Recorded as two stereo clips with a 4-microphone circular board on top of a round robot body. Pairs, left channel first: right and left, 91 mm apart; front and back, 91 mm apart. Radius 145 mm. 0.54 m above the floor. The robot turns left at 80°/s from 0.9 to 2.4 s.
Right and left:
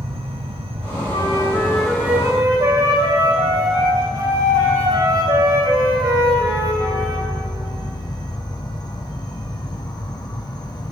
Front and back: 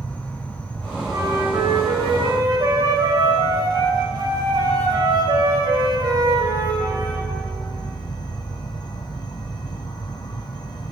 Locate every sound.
0.0 s an insect: 75° left, 1.6 m; by 10.9 s 45° right, 1.6 m
1.1 s a flute: 115° right, 3.5 m; by 7.3 s 140° left, 3.5 m